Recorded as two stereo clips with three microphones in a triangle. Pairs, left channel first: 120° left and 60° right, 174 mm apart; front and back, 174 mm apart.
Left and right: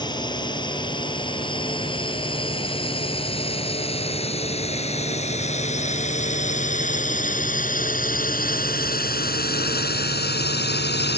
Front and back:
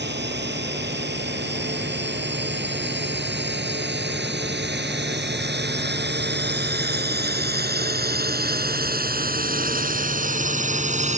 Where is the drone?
175° right; by 11.2 s 130° left.